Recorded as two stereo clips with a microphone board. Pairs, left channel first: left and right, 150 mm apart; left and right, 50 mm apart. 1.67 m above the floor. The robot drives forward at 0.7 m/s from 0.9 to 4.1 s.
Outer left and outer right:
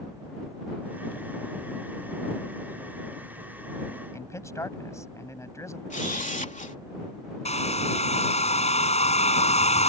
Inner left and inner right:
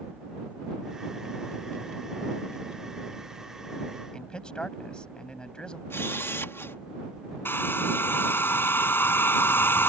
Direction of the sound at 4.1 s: 20° left (ahead or behind).